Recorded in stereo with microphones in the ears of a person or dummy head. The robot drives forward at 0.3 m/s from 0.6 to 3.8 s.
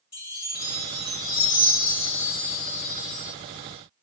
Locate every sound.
0.1 s a chime: 20° left (ahead or behind), 3 m; by 3.3 s 30° left (ahead or behind), 2.5 m